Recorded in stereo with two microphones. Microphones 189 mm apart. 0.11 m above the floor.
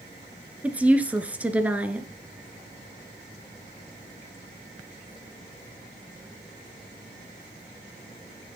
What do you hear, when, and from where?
0.6 s a woman speaking: 5° right (ahead or behind), 1.3 m